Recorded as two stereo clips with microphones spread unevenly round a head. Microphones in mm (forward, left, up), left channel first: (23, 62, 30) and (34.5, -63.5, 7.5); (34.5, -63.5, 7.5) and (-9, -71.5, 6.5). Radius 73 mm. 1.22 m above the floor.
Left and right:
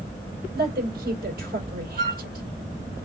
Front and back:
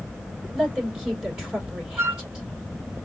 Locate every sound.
0.5 s a woman speaking: 95° right, 3 m
2.0 s a flute: 140° right, 0.8 m